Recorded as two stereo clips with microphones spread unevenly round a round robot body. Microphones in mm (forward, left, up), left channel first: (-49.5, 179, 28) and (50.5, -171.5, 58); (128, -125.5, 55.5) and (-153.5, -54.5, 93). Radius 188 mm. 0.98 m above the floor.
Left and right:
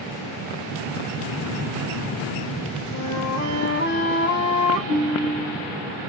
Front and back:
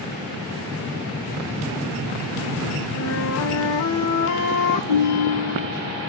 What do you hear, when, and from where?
2.9 s a flute: 35° left, 0.6 m
4.9 s a ringtone: 15° right, 1.1 m